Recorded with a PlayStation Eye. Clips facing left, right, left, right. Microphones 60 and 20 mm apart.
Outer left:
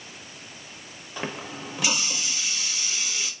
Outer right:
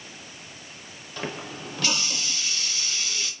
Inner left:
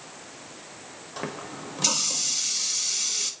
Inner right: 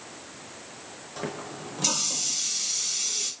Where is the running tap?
15° left (ahead or behind), 0.6 m.